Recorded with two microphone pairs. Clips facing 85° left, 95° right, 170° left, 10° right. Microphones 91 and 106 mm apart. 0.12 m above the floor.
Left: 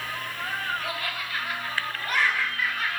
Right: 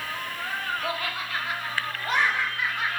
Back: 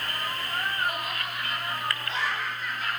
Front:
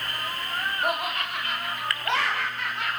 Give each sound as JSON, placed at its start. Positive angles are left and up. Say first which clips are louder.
{"t": 0.8, "sound": "laughter", "louder": "right 2 dB, front 4 dB", "azimuth_deg": -30, "distance_m": 10.0}